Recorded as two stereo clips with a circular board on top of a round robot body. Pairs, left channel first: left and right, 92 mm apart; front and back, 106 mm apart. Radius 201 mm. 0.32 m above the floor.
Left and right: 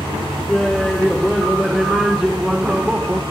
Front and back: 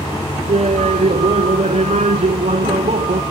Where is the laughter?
175° left; by 3.2 s 170° right.